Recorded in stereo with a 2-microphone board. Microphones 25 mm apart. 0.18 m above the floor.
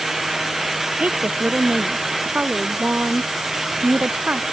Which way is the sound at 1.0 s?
65° right (ahead or behind).